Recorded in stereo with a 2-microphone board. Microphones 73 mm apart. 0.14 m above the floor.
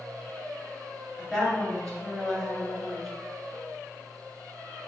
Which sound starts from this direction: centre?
A woman speaking, at 1.2 s.